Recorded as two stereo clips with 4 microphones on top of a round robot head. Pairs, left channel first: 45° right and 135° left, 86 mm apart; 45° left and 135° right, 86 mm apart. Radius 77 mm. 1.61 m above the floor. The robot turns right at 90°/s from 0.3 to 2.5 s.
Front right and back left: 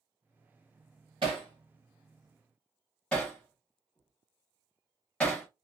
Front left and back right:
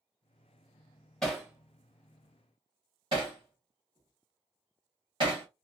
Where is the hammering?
125° left, 0.8 m; by 5.5 s 120° right, 0.8 m.